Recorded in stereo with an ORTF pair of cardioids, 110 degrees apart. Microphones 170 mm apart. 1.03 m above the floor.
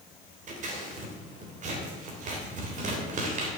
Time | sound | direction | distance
0.5 | scissors | 50° right | 3 m